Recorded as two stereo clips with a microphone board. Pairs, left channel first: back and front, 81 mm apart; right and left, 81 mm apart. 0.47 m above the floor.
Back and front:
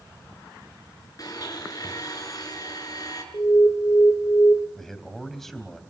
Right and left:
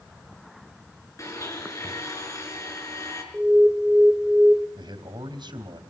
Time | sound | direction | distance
1.2 | a blender | 140° right | 4.5 m
3.3 | an alarm | 170° left | 2.5 m
4.8 | a man speaking | 95° left | 3 m